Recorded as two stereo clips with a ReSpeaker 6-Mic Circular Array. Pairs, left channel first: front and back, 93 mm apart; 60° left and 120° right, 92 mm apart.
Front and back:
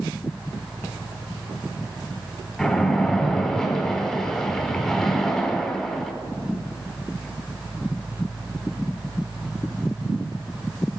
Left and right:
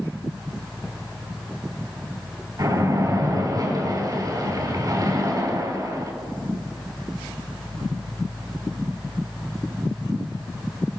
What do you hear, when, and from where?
2.6 s a splash: 85° right, 2.5 m